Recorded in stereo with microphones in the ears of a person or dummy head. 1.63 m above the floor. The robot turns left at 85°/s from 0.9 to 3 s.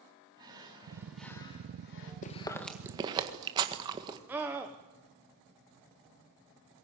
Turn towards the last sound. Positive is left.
turn(degrees=-10)  # may be behind; listen again after turning